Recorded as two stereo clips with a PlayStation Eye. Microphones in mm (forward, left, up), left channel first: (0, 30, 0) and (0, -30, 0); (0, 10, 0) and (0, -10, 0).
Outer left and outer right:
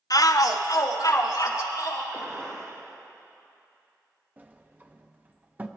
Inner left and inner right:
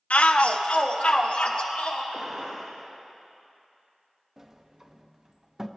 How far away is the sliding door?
About 0.7 m.